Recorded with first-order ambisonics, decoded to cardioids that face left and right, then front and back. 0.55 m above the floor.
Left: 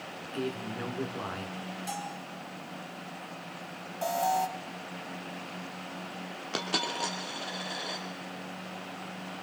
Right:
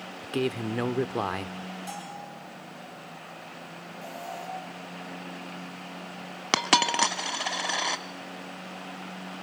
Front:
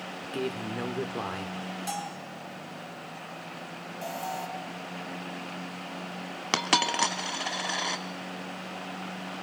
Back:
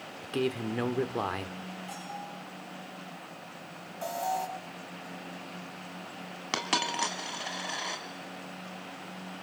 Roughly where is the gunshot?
I don't hear a gunshot.